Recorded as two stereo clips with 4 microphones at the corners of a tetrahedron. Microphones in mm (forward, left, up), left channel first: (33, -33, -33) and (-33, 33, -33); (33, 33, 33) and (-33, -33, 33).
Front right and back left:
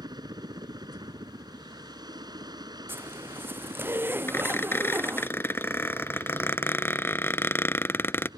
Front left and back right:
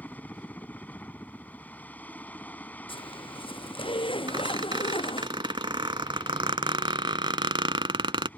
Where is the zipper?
70° left.